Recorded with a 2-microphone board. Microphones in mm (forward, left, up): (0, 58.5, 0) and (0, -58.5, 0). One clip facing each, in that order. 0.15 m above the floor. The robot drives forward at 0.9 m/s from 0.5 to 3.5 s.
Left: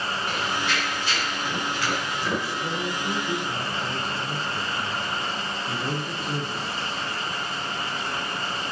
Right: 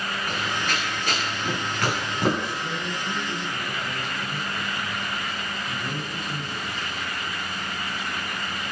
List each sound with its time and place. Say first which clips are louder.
0.3 s running footsteps: even; 45° right (ahead or behind), 9.5 m; by 2.5 s 60° right (ahead or behind), 10 m
2.6 s a man speaking: left 2 dB; 40° left (ahead or behind), 5.5 m; by 6.9 s 45° left (ahead or behind), 4.5 m